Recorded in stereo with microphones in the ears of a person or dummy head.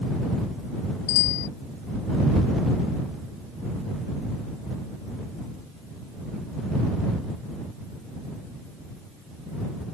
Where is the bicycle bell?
70° left (ahead or behind).